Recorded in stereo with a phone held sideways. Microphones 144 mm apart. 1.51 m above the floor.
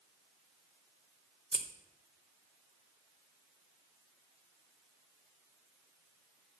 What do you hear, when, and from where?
1.5 s scissors: 5° right (ahead or behind), 0.7 m